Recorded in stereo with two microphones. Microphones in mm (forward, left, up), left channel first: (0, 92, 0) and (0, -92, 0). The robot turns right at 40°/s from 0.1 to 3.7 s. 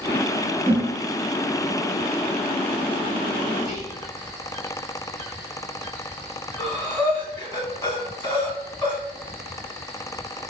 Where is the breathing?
15° left (ahead or behind), 1.4 m.